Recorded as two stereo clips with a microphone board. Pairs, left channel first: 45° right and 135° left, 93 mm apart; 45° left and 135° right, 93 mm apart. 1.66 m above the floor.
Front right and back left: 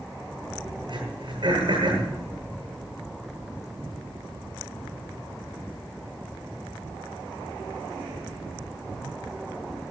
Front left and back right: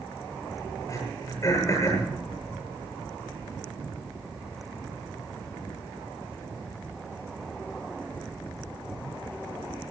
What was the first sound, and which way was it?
Throat clearing, 100° left.